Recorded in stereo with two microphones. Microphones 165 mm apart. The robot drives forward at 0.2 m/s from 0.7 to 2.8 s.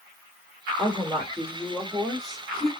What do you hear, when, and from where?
0.8 s a woman speaking: centre (ahead or behind), 2 m